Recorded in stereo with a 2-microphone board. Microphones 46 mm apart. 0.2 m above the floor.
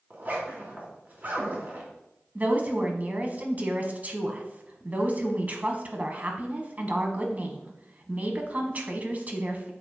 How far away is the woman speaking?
About 1.3 m.